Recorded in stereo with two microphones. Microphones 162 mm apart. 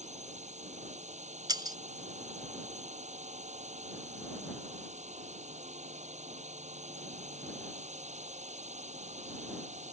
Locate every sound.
0.0 s a drone: 45° right (ahead or behind)
1.5 s breaking glass: 25° right (ahead or behind)